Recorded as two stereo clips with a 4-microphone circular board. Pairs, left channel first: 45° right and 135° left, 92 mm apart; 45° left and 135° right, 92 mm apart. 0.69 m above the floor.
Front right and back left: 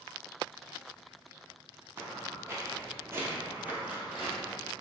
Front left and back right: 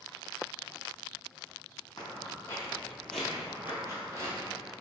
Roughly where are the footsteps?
Left.